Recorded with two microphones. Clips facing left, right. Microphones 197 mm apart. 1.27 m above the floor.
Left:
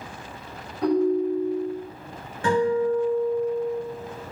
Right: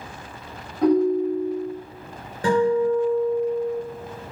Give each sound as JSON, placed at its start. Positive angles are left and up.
{"t": 0.8, "sound": "a ringtone", "side_deg": -70, "distance_m": 1.7}
{"t": 2.4, "sound": "a guitar", "side_deg": -40, "distance_m": 1.1}